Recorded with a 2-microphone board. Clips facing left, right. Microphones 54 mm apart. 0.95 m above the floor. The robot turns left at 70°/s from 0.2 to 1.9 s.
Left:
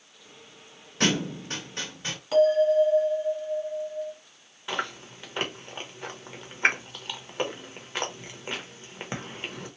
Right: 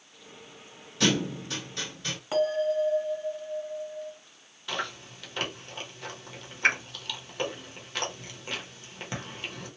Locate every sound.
1.0 s a thud: 40° left (ahead or behind), 1.2 m; by 2.2 s 30° left (ahead or behind), 1.2 m
2.3 s a bell: 20° right (ahead or behind), 1.6 m
4.7 s chewing: 25° left (ahead or behind), 0.9 m